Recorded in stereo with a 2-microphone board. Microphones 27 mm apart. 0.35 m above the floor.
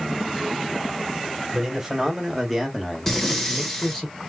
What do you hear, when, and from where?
1.5 s a man speaking: 15° right (ahead or behind), 1.5 m; by 4.1 s 25° left (ahead or behind), 1.3 m
3.1 s breathing: 10° left (ahead or behind), 1.1 m